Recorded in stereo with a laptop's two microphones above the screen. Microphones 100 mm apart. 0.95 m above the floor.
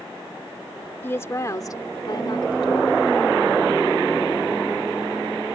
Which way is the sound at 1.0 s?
25° left (ahead or behind).